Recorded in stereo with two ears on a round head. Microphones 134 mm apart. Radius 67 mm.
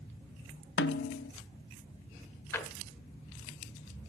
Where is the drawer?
15° left (ahead or behind), 1.4 m.